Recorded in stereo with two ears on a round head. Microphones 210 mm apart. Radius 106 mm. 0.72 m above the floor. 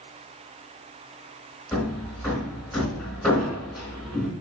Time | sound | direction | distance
1.7 | hammering | centre (ahead or behind) | 3.5 m